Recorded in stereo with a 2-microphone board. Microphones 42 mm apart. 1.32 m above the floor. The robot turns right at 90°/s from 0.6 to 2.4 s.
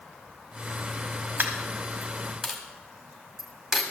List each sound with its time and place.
1.4 s a dropped coin: 55° right (ahead or behind), 1.8 m; by 3.8 s 10° right (ahead or behind), 1.8 m